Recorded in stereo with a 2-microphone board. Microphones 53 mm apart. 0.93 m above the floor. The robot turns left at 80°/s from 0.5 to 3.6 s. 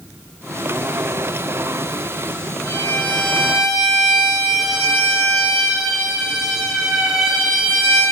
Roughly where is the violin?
Left.